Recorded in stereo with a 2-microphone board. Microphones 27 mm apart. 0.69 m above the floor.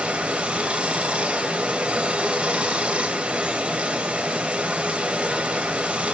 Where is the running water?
45° right (ahead or behind), 1.4 m.